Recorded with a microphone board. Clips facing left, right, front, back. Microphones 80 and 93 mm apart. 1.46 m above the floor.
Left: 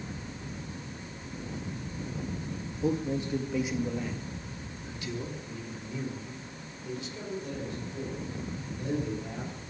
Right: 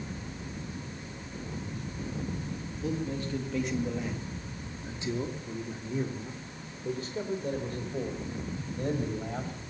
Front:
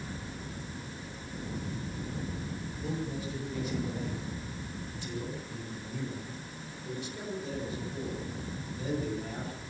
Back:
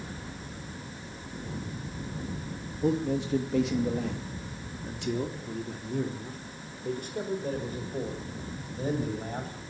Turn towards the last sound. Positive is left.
turn(degrees=-130)